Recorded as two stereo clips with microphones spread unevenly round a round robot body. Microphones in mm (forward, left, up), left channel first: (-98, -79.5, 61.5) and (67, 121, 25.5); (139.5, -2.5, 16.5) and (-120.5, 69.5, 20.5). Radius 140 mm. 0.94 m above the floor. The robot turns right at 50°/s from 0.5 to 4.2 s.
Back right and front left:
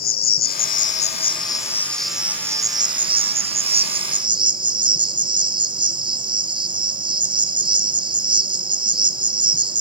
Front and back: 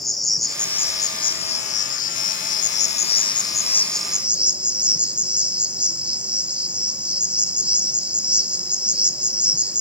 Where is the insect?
105° right, 1.1 m; by 9.8 s 80° left, 1.1 m.